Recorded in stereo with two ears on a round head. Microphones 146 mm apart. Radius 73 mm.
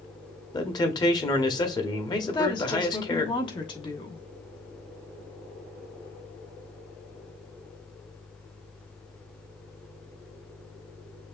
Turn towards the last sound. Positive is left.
turn(degrees=30)  # may be behind; listen again after turning